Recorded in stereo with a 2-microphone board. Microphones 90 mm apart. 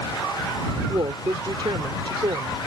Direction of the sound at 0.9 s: 65° right (ahead or behind).